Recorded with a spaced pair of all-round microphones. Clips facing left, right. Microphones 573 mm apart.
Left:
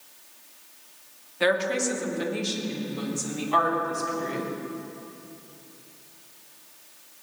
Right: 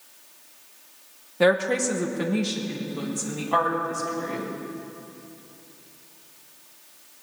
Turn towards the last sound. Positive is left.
turn(degrees=-65)  # may be behind; listen again after turning